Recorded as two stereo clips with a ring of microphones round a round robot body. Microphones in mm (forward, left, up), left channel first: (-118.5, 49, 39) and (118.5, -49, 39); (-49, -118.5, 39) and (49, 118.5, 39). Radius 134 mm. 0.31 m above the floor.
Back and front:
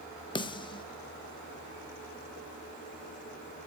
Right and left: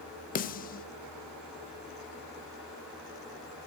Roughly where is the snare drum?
Behind right.